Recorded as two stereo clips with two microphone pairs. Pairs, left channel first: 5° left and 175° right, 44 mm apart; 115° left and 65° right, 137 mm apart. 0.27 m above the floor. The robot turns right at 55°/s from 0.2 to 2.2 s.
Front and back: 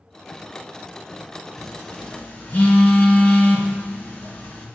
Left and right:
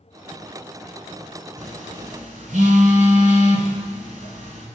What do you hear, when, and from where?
1.6 s a phone buzzing: 80° right, 1.7 m; by 4.7 s 45° right, 1.7 m